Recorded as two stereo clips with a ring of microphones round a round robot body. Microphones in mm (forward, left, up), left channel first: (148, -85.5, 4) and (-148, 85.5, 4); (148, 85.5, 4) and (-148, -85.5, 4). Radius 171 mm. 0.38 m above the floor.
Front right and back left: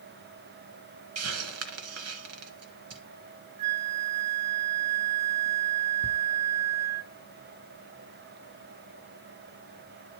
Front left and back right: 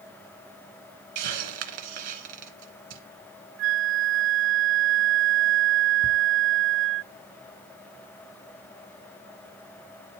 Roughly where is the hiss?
Behind.